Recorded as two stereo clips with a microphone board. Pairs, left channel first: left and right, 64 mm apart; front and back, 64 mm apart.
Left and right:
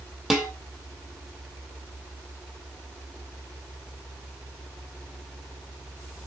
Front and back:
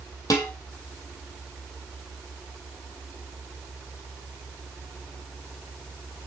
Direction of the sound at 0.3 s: 10° right.